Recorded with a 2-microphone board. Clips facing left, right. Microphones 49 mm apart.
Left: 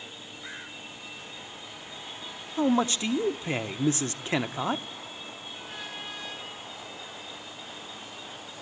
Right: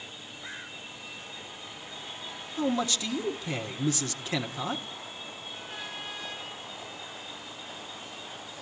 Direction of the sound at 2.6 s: 35° left (ahead or behind).